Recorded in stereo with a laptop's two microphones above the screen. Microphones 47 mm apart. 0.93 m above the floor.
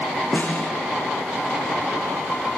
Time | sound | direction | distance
0.3 | a snare drum | 35° left (ahead or behind) | 9.5 m